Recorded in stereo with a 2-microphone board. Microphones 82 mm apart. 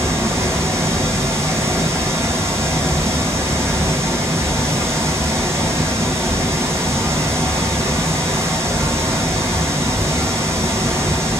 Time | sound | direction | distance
0.0 | running water | 35° right (ahead or behind) | 1.0 m